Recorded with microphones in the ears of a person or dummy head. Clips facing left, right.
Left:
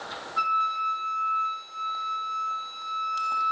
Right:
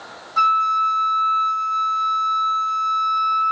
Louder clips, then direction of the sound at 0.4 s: Right 10 dB; 60° right (ahead or behind).